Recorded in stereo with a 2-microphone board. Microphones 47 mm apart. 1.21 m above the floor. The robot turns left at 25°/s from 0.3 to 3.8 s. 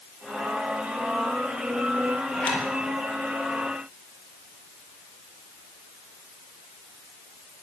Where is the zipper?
25° left (ahead or behind), 5 m; by 2.7 s 35° left (ahead or behind), 5 m.